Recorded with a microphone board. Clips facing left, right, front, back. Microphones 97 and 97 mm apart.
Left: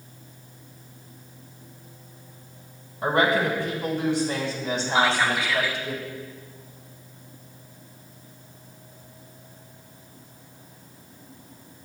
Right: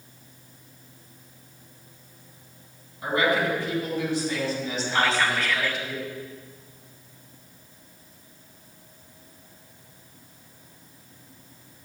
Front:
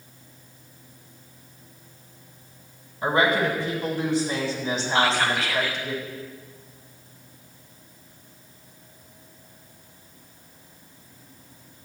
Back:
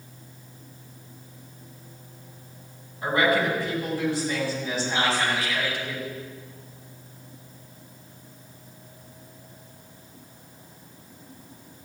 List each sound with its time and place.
3.0 s a woman speaking: 65° left, 6.5 m
5.0 s whispering: 20° left, 1.6 m